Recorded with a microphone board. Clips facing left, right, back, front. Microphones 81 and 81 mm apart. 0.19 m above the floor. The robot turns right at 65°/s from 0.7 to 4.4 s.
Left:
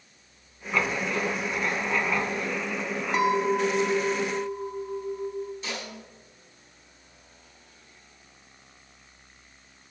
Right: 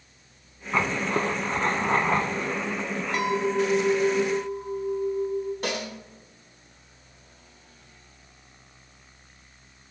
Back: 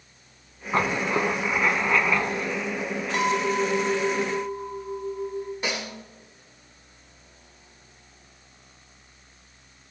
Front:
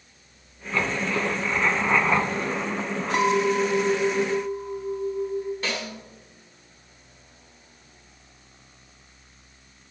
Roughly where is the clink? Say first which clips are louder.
Left 1 dB, front 3 dB; ahead left.